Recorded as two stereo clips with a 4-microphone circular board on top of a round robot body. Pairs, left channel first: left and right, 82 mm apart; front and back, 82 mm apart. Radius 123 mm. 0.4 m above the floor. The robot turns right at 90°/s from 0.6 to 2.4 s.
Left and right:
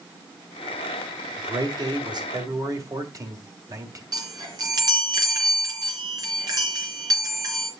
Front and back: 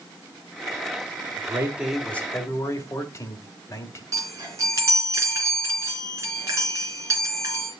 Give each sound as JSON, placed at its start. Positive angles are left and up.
{"t": 1.4, "sound": "a man speaking", "azimuth_deg": -140, "distance_m": 2.5}
{"t": 4.1, "sound": "a chime", "azimuth_deg": -130, "distance_m": 3.5}